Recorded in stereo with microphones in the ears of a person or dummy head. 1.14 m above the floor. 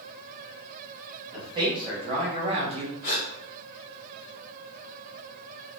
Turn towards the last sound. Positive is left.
turn(degrees=55)  # may be behind; listen again after turning